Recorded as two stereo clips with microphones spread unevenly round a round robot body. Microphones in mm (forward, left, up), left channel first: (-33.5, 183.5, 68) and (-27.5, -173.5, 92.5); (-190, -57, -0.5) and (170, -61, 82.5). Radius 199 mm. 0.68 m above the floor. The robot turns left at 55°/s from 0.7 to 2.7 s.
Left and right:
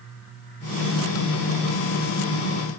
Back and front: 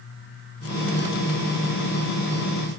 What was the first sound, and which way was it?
Only background noise.